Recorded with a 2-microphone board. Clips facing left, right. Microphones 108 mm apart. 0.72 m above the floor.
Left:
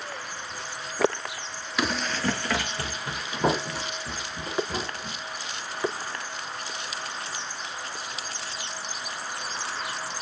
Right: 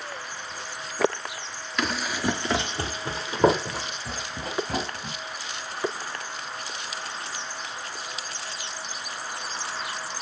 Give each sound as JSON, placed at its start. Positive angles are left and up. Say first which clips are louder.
{"t": 1.8, "sound": "running footsteps", "louder": "even", "side_deg": 5, "distance_m": 0.7}